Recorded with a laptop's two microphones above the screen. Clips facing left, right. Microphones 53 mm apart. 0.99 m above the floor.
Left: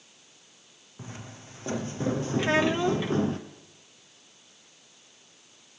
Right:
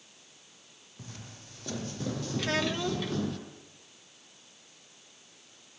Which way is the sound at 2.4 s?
25° left (ahead or behind).